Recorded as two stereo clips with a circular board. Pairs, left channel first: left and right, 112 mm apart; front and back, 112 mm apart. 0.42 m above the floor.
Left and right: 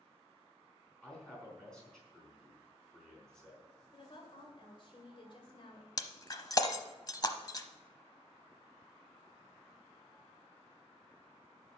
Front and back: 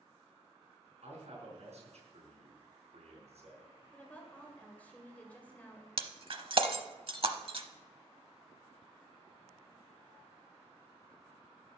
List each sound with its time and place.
1.0 s a man speaking: 175° left, 4.5 m
3.9 s a woman speaking: 75° left, 2 m
6.0 s breaking glass: 145° left, 0.8 m